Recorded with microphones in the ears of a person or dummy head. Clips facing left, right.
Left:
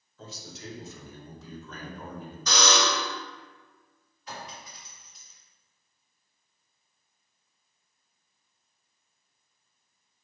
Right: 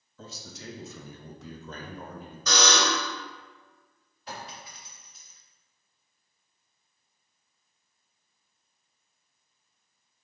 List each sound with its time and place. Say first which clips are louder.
0.2 s a man speaking: left 1 dB; 80° right, 1.2 m; by 2.4 s 5° left (ahead or behind), 0.7 m
2.5 s a buzzer: even; 70° right (ahead or behind), 1.8 m
4.3 s a clink: right 1 dB; 20° right (ahead or behind), 0.6 m